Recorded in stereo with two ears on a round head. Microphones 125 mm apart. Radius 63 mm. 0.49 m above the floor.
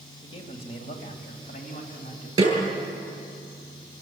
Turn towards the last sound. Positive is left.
turn(degrees=-25)  # may be behind; listen again after turning